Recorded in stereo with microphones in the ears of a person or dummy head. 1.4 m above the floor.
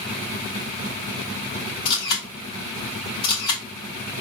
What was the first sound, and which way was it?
A camera shutter, 70° left (ahead or behind).